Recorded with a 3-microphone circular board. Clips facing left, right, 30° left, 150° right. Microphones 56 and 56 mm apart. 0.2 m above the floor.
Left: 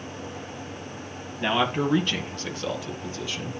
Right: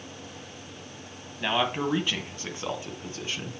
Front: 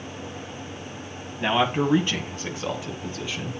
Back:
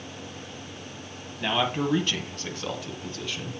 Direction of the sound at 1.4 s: 15° left.